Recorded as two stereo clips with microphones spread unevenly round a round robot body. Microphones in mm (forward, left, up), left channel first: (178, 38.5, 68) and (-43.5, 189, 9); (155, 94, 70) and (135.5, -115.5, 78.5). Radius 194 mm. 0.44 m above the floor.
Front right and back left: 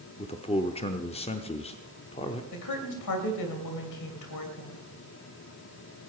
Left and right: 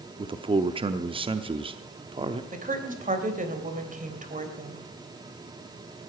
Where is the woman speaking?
45° right, 3 m.